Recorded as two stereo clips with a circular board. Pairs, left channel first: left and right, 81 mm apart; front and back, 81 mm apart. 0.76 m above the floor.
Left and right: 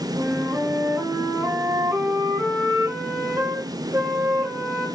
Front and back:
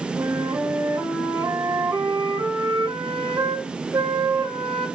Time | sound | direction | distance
0.2 | a flute | 155° right | 1.2 m